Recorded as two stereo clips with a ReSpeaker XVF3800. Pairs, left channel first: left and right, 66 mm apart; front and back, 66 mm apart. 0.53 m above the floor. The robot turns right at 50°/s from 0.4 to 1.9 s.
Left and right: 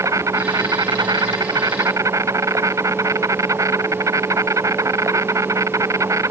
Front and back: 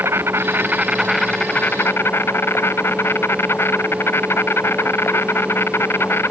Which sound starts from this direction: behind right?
An insect, at 0.0 s.